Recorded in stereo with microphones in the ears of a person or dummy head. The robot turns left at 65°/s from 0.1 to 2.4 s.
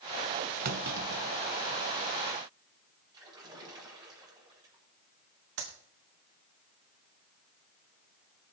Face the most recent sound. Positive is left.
turn(degrees=-75)  # may be behind; listen again after turning